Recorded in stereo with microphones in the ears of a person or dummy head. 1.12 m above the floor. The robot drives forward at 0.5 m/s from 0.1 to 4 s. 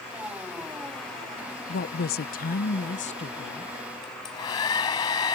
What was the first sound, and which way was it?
A woman speaking, 40° left (ahead or behind).